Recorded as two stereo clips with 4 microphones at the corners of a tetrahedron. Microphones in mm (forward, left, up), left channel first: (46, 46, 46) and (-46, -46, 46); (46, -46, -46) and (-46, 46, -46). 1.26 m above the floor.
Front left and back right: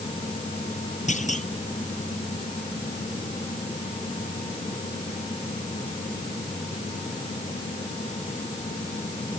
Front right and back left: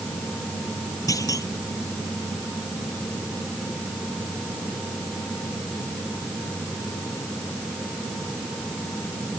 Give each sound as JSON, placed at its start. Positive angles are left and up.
{"t": 1.1, "sound": "a clunk", "azimuth_deg": 20}